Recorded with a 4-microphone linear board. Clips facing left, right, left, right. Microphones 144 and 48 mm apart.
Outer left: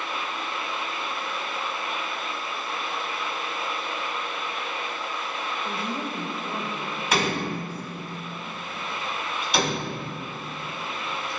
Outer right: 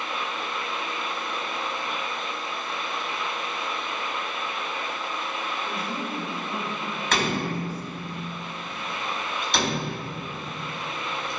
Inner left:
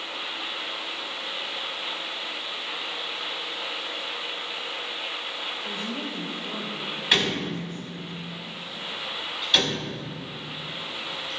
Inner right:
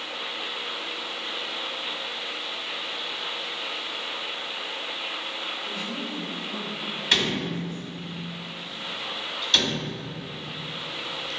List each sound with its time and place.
5.7 s a woman speaking: 25° left (ahead or behind), 2.5 m; by 8.1 s 55° left (ahead or behind), 2 m
7.1 s a door slam: 10° left (ahead or behind), 3.5 m